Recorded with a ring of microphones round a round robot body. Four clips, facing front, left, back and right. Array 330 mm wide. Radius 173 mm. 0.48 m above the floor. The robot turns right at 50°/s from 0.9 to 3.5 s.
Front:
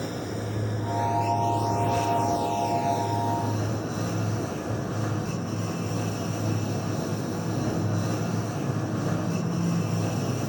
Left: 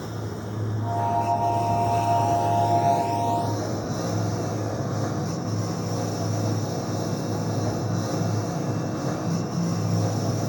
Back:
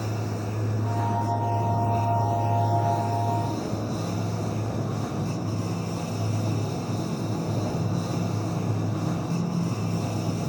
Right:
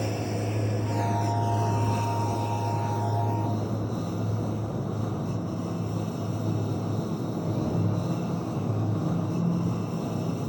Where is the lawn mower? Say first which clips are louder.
Right 3 dB, even; 55° right; by 10.5 s 75° left.